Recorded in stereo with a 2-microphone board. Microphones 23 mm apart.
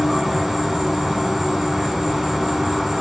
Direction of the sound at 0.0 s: Centre (ahead or behind).